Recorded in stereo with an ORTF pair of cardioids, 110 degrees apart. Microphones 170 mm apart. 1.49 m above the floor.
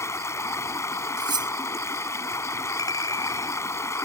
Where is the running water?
15° left.